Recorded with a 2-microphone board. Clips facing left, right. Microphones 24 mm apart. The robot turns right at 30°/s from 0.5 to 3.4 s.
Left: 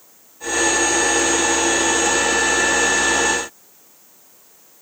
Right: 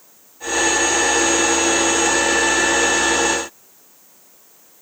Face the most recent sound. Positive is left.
No sound to turn to.